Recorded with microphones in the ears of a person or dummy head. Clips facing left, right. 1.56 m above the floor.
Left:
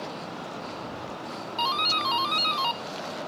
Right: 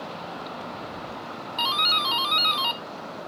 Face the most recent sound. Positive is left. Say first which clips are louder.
# left 1 dB
turn(degrees=-10)  # may be behind; listen again after turning